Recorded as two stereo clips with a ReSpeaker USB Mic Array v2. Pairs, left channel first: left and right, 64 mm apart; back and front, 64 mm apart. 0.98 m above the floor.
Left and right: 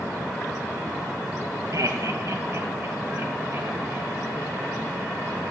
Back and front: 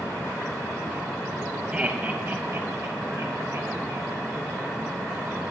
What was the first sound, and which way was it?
Laughter, 70° right.